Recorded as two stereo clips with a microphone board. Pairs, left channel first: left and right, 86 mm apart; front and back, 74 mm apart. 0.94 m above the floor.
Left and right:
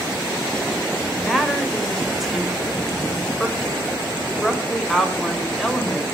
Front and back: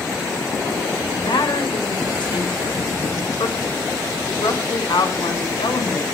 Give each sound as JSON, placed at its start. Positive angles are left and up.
{"t": 1.2, "sound": "a woman speaking", "azimuth_deg": 0, "distance_m": 3.5}